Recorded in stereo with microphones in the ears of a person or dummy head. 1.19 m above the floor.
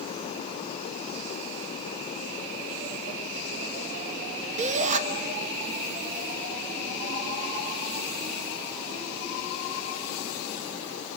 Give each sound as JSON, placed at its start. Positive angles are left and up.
{"t": 4.6, "sound": "a shout", "side_deg": -40, "distance_m": 1.9}